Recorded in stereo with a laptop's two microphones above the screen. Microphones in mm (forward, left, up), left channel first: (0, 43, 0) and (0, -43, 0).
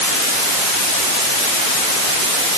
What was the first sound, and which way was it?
Only background noise.